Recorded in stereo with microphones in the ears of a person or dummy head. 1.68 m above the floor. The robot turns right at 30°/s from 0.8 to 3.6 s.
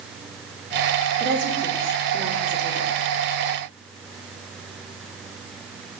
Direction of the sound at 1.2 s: 75° right (ahead or behind).